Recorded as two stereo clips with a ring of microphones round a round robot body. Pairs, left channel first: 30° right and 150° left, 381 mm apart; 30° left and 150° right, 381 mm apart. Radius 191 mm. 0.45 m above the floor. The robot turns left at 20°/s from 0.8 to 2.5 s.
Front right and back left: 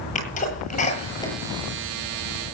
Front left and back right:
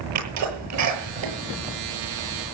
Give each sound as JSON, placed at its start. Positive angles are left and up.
{"t": 0.1, "sound": "a sneeze", "azimuth_deg": -100, "distance_m": 8.5}